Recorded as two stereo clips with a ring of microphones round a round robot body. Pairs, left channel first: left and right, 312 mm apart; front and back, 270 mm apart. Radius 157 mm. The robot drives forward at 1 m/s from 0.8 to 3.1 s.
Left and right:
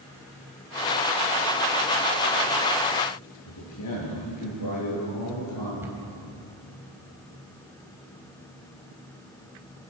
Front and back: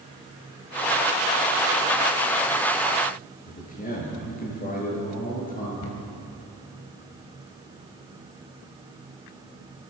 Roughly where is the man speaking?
Ahead left.